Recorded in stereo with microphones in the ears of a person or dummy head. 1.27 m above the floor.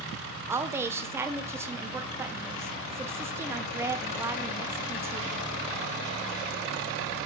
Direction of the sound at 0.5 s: 15° right (ahead or behind).